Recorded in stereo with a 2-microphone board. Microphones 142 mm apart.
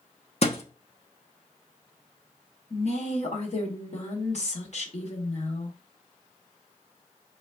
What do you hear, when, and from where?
0.4 s a thud: 45° left (ahead or behind), 0.8 m
2.7 s a woman speaking: 50° left (ahead or behind), 1.7 m